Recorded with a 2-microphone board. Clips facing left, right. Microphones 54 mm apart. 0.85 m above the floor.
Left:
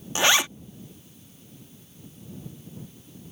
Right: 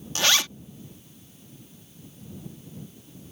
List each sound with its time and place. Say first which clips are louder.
0.1 s a zipper: left 3 dB; 20° left (ahead or behind)